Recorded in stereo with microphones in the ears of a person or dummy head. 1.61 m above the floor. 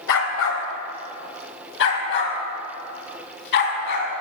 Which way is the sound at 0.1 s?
70° left (ahead or behind).